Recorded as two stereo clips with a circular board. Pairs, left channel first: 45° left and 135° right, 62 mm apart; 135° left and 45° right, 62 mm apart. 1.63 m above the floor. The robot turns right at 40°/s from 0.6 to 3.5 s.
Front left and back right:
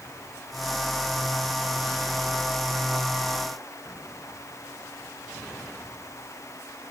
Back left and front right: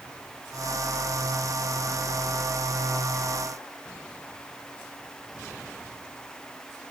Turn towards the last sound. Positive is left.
No sound to turn to.